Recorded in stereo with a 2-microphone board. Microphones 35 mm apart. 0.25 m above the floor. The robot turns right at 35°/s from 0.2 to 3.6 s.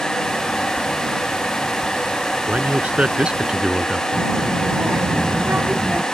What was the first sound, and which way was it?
A man speaking, 65° right.